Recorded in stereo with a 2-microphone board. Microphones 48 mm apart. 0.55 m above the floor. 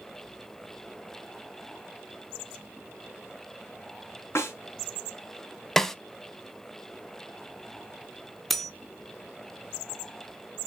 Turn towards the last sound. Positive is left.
turn(degrees=5)  # may be behind; listen again after turning